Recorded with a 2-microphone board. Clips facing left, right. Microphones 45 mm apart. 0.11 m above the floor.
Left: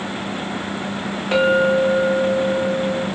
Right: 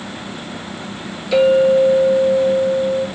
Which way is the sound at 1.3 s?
40° left (ahead or behind).